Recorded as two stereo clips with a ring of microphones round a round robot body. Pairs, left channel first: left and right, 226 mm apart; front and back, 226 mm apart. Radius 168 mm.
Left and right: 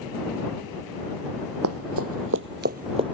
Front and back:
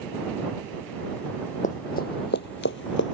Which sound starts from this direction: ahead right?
Running footsteps, at 1.6 s.